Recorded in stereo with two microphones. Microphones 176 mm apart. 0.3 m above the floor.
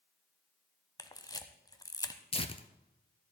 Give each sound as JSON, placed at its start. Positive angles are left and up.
{"t": 1.0, "sound": "a camera shutter", "side_deg": 20, "distance_m": 1.0}
{"t": 2.3, "sound": "tearing paper", "side_deg": 35, "distance_m": 0.8}